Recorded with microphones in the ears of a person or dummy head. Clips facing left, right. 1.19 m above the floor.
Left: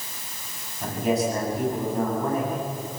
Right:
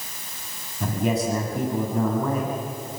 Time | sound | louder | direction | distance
0.8 | a man speaking | even | 65° right (ahead or behind) | 7.5 m